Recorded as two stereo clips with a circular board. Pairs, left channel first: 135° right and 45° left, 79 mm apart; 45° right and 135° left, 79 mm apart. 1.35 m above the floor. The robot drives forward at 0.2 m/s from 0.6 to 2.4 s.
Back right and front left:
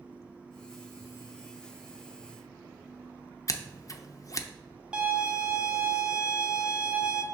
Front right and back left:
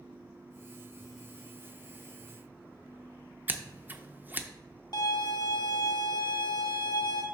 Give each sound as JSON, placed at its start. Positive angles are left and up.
{"t": 3.5, "sound": "scissors", "azimuth_deg": -165, "distance_m": 0.5}
{"t": 4.9, "sound": "a violin", "azimuth_deg": -30, "distance_m": 0.9}